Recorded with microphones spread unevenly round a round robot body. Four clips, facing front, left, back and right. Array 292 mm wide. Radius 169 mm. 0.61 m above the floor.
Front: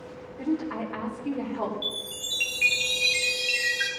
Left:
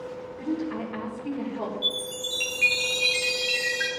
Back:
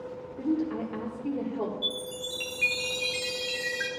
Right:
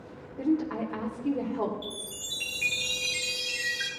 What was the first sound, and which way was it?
A woman speaking, 130° right.